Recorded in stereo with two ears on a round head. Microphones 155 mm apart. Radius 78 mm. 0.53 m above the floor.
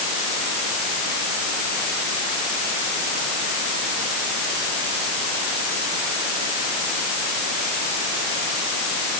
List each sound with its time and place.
Only background noise.